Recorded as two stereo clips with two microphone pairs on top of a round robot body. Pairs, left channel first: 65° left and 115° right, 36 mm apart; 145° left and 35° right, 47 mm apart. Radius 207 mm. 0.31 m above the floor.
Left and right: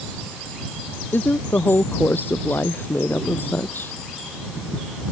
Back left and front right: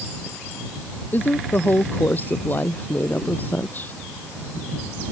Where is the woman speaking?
95° left.